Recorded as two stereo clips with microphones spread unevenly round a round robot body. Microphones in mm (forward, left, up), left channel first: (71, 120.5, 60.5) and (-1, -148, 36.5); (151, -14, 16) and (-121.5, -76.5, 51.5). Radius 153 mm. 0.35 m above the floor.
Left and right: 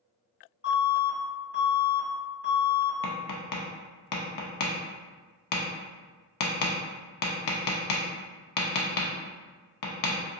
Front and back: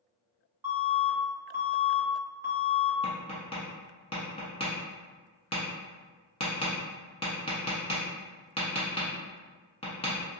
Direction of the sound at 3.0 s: 85° left.